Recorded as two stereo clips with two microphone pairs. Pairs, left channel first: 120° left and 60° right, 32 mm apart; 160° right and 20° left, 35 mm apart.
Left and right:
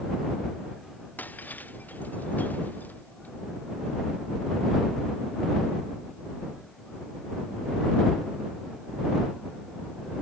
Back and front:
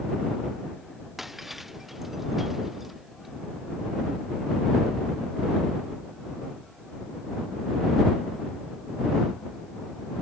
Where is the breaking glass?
105° left.